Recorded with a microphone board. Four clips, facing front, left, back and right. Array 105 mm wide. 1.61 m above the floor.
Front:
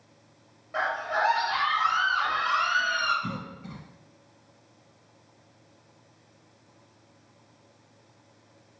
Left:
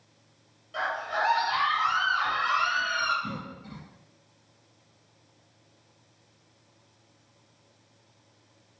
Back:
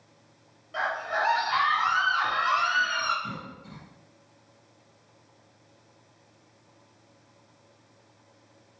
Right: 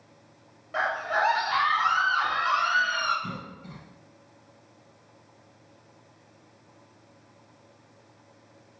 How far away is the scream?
About 0.6 m.